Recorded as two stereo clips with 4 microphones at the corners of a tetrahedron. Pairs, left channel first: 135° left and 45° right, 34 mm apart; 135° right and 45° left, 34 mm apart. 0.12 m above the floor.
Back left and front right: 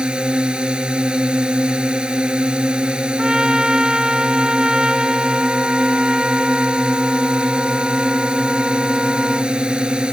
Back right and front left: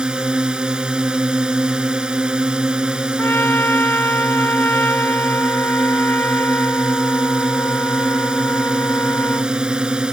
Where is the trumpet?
115° right.